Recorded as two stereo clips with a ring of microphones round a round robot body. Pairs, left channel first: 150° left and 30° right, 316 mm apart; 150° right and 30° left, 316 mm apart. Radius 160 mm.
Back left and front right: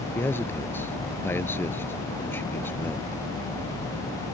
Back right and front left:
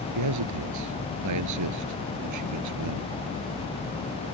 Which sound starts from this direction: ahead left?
A man speaking, at 0.1 s.